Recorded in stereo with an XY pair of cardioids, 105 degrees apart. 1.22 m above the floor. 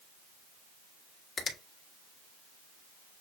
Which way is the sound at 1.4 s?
45° left.